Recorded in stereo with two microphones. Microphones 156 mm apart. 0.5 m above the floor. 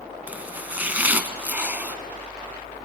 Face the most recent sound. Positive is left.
turn(degrees=-10)  # may be behind; listen again after turning